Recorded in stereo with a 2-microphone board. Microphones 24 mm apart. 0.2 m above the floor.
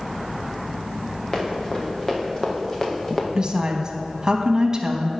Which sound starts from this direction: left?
Running footsteps, at 1.3 s.